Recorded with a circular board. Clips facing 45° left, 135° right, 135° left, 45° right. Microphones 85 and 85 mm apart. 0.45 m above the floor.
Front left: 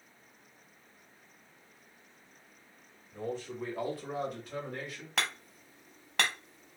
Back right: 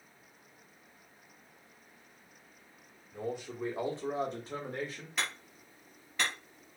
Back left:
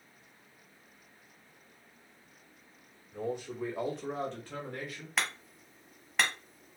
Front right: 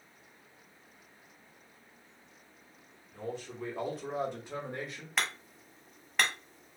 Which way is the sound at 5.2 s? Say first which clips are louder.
Front left 3 dB, even; 45° left.